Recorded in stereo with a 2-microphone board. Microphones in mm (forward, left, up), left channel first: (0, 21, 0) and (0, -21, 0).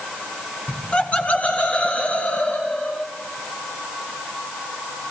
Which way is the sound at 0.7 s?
25° left (ahead or behind).